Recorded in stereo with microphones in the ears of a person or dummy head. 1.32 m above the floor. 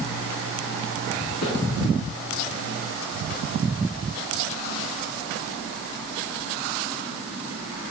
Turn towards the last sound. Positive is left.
turn(degrees=75)  # may be behind; listen again after turning